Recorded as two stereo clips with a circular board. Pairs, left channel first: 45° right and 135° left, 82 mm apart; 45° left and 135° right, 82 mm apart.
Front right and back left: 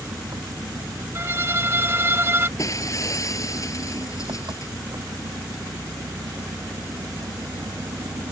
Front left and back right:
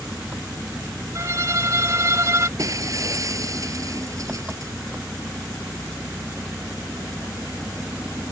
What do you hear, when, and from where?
0.0 s an engine running: 155° left
1.1 s a violin: 175° right
2.6 s breaking glass: 90° right